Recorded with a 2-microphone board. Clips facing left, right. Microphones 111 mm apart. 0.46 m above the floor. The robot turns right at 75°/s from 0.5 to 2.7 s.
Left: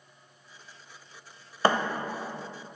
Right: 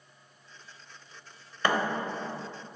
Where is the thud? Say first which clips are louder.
Left 3 dB; 35° left (ahead or behind), 0.6 m; by 1.8 s 20° left (ahead or behind), 0.6 m.